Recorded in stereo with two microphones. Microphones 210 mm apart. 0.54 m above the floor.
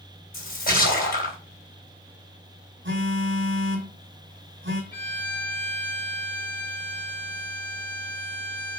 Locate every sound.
0.3 s a splash: 45° left (ahead or behind), 3 m
2.9 s a phone buzzing: 60° right (ahead or behind), 2 m
4.9 s a violin: 45° left (ahead or behind), 3 m